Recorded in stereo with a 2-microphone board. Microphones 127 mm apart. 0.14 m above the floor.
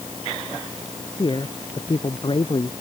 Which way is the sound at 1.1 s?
35° left (ahead or behind).